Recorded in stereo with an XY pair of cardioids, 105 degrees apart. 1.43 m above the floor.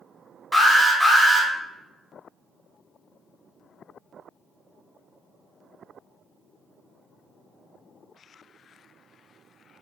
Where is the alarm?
Straight ahead, 1.2 m.